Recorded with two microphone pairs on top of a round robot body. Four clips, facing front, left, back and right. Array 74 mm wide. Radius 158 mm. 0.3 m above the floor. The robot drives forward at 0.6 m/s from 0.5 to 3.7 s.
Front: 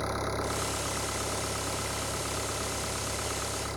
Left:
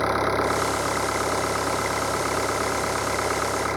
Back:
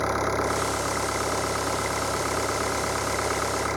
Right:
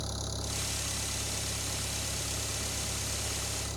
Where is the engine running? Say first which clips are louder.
Left 19 dB, back 7 dB; 115° left; by 3.8 s 120° left.